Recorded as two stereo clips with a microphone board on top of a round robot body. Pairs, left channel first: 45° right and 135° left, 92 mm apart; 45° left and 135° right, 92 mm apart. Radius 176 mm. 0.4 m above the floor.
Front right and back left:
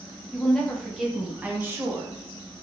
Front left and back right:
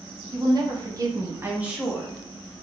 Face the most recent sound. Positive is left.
turn(degrees=110)